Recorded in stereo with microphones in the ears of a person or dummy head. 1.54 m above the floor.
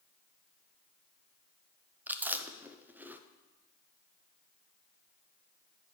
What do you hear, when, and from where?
2.1 s chewing: 10° right (ahead or behind), 0.6 m